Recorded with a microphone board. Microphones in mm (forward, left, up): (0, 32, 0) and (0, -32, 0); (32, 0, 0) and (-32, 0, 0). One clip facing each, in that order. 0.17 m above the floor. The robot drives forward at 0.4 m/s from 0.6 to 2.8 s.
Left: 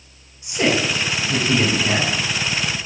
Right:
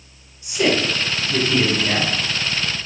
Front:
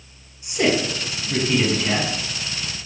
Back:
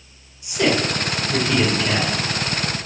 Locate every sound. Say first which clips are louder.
0.4 s a man speaking: even, back 1 dB; 40° left, 1.4 m; by 2.1 s 75° left, 1.2 m